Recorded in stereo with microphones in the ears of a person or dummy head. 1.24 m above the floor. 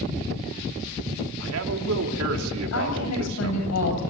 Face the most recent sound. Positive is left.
turn(degrees=90)